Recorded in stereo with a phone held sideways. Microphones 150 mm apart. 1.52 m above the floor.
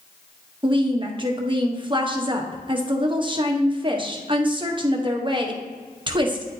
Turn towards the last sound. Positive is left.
turn(degrees=-30)  # may be behind; listen again after turning